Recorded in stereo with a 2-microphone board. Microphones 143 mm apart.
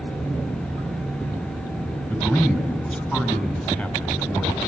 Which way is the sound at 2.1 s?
15° left (ahead or behind).